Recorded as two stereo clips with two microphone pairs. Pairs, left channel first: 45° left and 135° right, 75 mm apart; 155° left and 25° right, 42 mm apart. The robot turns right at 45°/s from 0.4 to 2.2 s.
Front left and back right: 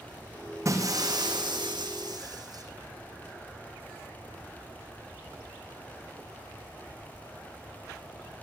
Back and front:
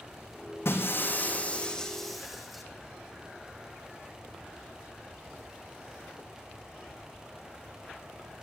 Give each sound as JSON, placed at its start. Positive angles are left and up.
{"t": 0.7, "sound": "breaking glass", "azimuth_deg": 175, "distance_m": 5.0}